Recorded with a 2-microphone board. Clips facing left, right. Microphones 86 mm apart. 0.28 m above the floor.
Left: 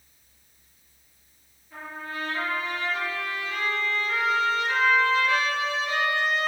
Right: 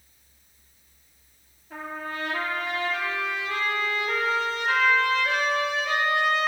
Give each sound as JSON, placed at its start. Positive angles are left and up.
{"t": 1.7, "sound": "a trumpet", "side_deg": -70, "distance_m": 2.5}